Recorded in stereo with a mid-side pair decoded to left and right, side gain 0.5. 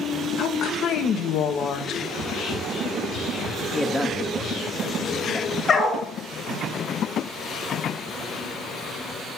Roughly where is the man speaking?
Ahead.